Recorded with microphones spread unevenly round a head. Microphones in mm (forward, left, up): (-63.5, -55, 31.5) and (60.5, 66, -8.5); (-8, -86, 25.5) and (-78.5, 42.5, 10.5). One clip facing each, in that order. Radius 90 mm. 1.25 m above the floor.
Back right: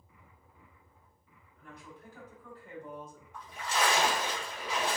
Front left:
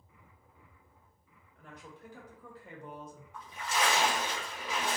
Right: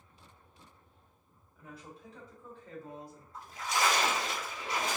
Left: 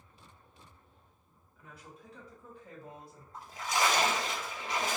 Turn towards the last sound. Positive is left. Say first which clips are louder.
# back right 1 dB, left 1 dB
turn(degrees=60)